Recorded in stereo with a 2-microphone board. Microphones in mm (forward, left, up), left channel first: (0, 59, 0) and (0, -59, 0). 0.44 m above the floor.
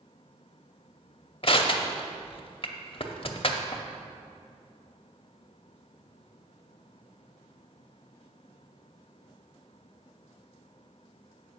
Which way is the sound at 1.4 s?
55° left (ahead or behind).